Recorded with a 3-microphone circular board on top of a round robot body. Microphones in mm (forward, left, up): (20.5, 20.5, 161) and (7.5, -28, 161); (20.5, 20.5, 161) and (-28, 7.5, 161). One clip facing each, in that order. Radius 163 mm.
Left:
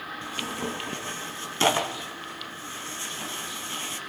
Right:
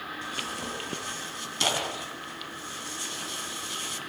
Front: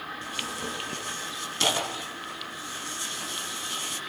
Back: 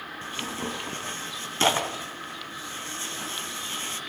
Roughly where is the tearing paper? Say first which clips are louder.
Left 4 dB, back 3 dB; behind left.